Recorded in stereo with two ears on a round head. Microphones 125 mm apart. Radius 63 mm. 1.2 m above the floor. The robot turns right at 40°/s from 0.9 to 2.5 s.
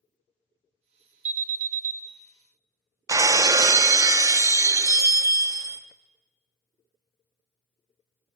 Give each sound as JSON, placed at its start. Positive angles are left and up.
{"t": 1.2, "sound": "an alarm", "side_deg": -55, "distance_m": 0.9}
{"t": 3.1, "sound": "breaking glass", "side_deg": -25, "distance_m": 0.6}